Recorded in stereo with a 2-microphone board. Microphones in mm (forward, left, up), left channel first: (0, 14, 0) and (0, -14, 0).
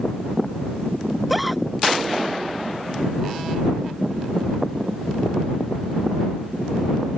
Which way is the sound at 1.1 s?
Centre (ahead or behind).